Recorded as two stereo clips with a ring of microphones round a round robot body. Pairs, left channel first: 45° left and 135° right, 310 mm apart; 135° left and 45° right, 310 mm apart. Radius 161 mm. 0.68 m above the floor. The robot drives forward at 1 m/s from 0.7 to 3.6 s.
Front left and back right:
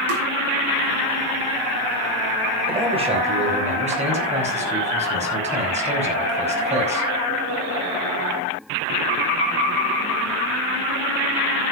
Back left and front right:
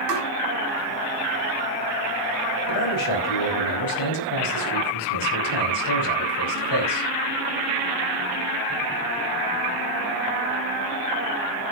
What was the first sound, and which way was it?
Tapping, 90° right.